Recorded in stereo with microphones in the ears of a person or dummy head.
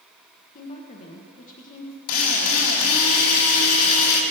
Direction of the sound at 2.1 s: 80° left.